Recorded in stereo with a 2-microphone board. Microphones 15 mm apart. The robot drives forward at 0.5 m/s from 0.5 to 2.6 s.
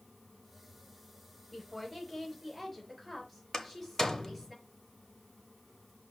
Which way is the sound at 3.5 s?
30° left (ahead or behind).